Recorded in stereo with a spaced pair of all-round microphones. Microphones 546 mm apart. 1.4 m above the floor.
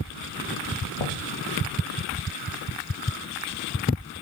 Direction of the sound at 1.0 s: 75° left (ahead or behind).